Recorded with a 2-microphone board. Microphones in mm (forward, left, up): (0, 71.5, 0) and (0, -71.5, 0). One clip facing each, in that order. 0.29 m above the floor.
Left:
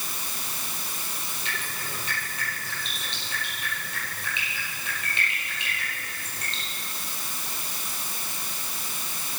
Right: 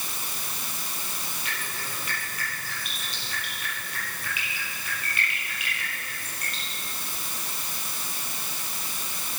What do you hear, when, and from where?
1.4 s dripping: 25° left (ahead or behind), 8 m